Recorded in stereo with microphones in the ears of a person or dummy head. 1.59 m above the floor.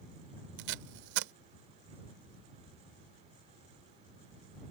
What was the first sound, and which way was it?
Tape being pulled, 70° right (ahead or behind).